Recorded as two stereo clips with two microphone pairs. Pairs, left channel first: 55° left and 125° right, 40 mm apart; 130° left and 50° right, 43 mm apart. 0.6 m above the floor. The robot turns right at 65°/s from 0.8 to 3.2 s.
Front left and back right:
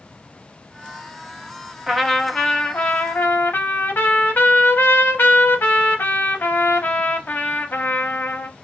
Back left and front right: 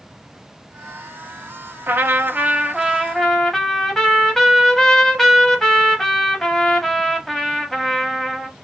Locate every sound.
1.9 s a trumpet: 35° right, 0.7 m; by 8.5 s 50° left, 0.7 m